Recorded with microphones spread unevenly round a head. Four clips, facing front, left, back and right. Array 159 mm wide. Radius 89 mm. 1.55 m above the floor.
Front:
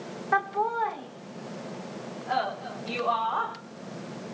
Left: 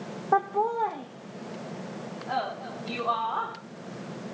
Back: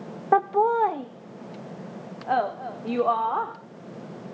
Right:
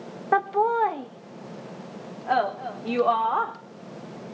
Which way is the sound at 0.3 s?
165° right.